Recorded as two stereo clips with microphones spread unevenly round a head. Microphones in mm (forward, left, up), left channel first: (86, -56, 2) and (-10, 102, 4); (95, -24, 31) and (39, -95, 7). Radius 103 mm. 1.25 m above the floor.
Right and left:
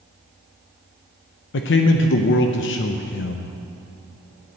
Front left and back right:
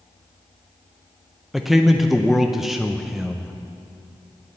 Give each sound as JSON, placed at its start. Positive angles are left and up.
{"t": 1.5, "sound": "a man speaking", "azimuth_deg": -40, "distance_m": 0.6}